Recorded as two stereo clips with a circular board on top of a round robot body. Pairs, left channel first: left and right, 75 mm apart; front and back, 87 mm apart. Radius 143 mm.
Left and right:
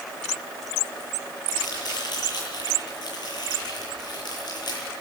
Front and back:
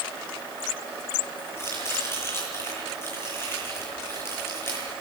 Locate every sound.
1.6 s chopping: 60° left, 9.5 m